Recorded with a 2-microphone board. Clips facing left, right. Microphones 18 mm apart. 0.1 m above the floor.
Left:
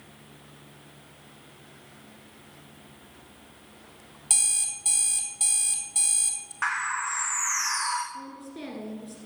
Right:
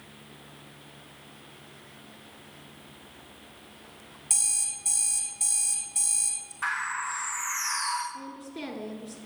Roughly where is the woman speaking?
Centre.